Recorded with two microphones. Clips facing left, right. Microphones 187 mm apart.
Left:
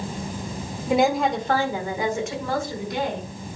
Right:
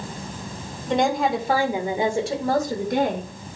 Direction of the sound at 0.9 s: 10° left (ahead or behind).